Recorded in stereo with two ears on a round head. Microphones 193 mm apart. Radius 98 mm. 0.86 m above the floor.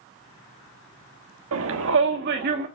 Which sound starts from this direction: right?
A shout, at 1.5 s.